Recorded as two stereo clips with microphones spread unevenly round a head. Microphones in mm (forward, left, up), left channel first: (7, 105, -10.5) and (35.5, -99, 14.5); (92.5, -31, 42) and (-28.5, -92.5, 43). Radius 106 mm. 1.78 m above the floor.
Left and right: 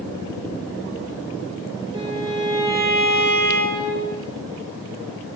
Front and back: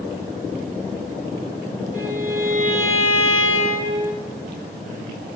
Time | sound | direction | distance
1.9 | a violin | 150° right | 5.5 m